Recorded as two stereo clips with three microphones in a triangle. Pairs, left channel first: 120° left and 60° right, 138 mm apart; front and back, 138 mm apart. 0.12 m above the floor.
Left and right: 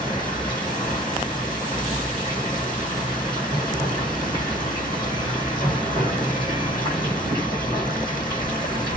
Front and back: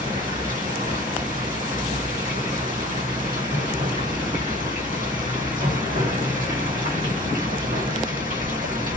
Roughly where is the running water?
Behind.